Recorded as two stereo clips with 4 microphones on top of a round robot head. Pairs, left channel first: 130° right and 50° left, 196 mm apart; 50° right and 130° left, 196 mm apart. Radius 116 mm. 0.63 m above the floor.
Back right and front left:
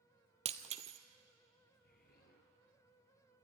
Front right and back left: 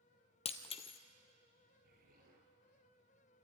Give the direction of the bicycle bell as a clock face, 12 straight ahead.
I don't hear a bicycle bell.